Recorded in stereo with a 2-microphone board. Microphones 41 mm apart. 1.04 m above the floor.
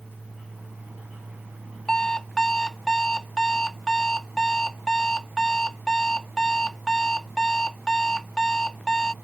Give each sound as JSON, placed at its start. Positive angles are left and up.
{"t": 1.9, "sound": "an alarm clock", "side_deg": 10}